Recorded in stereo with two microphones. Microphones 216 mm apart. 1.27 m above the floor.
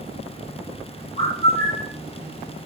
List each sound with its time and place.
1.2 s a bird: 50° right (ahead or behind), 9 m